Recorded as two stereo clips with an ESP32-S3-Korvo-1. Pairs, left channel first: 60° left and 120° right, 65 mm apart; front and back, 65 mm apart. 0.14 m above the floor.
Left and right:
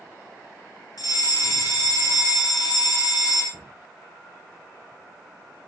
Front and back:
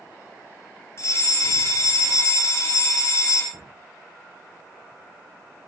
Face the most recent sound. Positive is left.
turn(degrees=135)